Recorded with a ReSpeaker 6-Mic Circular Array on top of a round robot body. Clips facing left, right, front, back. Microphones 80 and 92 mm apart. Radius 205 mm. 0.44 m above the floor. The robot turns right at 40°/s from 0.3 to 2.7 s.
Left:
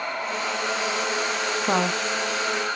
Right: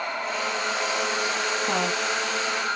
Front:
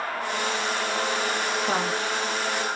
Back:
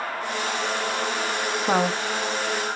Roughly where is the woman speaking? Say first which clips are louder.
Left 5 dB, back 7 dB; behind left.